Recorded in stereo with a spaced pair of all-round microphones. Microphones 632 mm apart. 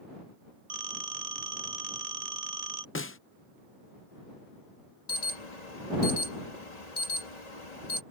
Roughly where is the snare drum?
Left.